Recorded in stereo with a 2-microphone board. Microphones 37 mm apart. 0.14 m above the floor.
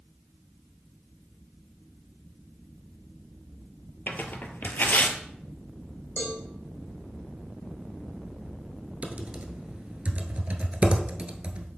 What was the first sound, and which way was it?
Tearing paper, 55° left (ahead or behind).